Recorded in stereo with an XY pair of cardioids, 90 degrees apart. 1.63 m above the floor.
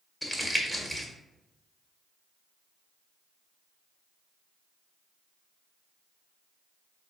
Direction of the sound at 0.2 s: 10° left.